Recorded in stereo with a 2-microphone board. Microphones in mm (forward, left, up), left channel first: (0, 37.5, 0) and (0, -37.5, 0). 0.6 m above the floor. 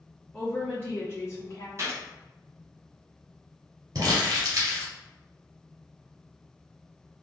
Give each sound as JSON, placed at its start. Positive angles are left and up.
{"t": 0.3, "sound": "a woman speaking", "side_deg": 15, "distance_m": 1.0}
{"t": 1.8, "sound": "a gunshot", "side_deg": -40, "distance_m": 1.5}
{"t": 4.0, "sound": "crumpling", "side_deg": -55, "distance_m": 2.0}